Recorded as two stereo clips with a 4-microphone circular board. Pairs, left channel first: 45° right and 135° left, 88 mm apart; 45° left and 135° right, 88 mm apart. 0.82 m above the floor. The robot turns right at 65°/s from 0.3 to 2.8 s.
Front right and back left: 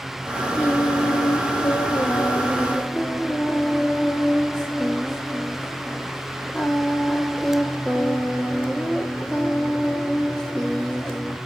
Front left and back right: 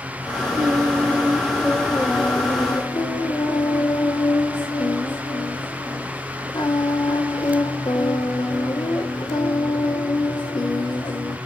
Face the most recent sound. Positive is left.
turn(degrees=35)